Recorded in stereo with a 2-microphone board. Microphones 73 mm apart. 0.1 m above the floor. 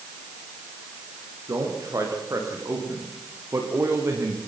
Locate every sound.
1.5 s a man speaking: 50° right (ahead or behind), 8.5 m; by 4.4 s 35° right (ahead or behind), 5 m